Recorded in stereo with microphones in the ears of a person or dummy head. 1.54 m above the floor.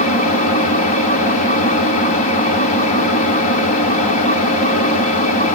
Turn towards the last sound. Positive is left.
turn(degrees=35)  # may be behind; listen again after turning